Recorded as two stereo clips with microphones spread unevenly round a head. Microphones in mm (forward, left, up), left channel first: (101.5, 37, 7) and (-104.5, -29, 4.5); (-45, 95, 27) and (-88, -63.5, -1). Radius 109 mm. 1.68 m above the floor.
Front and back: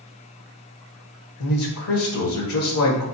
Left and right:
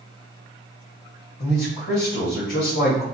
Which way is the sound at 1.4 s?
35° left.